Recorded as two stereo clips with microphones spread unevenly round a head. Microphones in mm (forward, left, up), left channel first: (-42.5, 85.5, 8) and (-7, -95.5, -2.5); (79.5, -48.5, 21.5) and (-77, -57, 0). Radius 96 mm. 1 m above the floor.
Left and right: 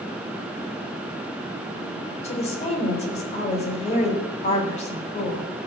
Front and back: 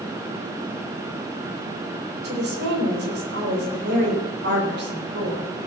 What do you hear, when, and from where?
2.2 s a woman speaking: 155° left, 4 m